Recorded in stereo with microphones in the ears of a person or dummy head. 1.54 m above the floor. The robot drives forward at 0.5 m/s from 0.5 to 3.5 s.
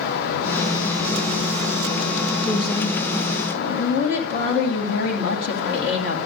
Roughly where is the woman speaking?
Left.